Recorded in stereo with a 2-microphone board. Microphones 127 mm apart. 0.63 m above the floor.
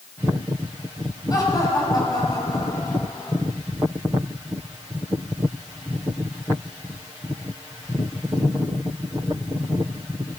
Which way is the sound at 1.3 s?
30° left (ahead or behind).